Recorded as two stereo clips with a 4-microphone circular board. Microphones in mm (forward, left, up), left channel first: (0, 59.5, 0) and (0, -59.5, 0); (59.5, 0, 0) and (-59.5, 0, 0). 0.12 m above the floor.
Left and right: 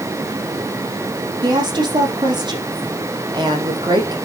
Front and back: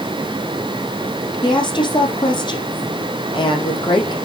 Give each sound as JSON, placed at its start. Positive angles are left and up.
{"t": 1.4, "sound": "a woman speaking", "azimuth_deg": -45, "distance_m": 4.5}